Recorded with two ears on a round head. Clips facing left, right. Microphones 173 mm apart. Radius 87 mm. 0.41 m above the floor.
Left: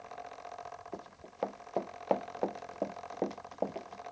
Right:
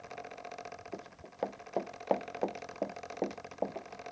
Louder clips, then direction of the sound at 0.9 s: Even; 5° right (ahead or behind).